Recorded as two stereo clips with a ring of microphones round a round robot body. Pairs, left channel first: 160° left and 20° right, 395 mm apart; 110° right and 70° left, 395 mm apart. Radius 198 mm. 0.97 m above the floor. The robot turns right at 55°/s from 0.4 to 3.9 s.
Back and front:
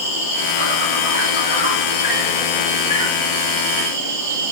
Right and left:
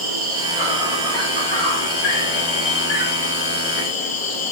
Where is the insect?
125° left, 4.5 m; by 4.5 s 45° right, 4.5 m.